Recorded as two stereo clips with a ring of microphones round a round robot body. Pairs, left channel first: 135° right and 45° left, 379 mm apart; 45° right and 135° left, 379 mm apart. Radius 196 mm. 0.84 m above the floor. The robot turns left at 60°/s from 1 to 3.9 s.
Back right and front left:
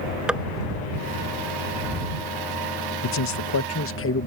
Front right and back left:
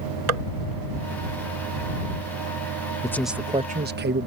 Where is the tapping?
135° left.